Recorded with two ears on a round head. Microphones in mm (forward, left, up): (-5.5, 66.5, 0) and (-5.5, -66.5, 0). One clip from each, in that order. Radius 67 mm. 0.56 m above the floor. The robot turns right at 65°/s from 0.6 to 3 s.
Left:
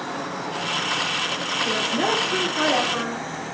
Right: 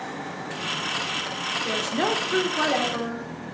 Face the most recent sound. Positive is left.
turn(degrees=25)